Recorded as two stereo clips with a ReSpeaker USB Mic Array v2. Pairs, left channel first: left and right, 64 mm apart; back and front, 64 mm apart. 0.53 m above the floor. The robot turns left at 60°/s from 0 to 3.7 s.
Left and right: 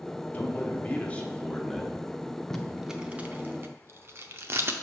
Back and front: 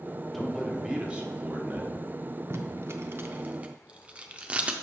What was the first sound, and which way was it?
A man speaking, 100° left.